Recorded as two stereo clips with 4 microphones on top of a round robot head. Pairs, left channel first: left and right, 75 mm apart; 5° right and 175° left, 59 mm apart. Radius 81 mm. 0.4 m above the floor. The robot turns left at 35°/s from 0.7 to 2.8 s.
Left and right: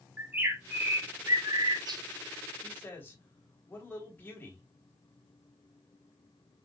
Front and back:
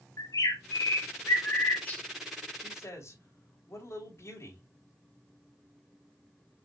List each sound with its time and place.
0.2 s a bird: 25° right, 1.7 m; by 2.0 s 70° right, 1.7 m
2.6 s a man speaking: 30° left, 3.5 m; by 4.6 s 25° left, 3.5 m